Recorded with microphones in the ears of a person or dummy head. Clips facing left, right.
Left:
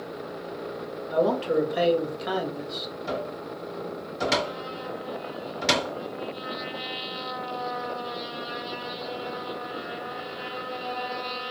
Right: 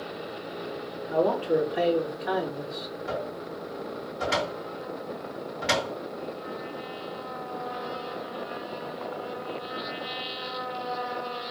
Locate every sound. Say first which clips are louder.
1.1 s a man speaking: left 1 dB; 55° left (ahead or behind), 2.5 m
3.1 s a cupboard door: left 2 dB; 55° left (ahead or behind), 2.5 m